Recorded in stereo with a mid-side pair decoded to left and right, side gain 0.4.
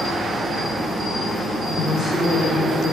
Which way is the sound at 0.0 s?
50° right.